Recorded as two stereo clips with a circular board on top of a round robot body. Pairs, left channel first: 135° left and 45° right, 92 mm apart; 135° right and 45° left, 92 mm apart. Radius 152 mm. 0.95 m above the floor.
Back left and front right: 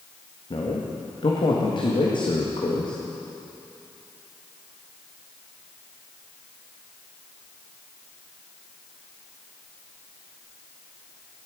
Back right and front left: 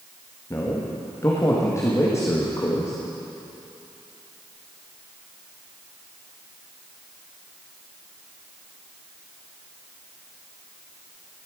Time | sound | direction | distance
0.5 | a man speaking | 165° left | 1.8 m